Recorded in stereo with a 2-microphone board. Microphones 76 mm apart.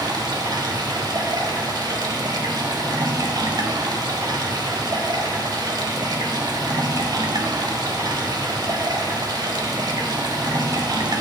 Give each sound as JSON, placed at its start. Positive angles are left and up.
{"t": 0.0, "sound": "running water", "side_deg": -65, "distance_m": 1.2}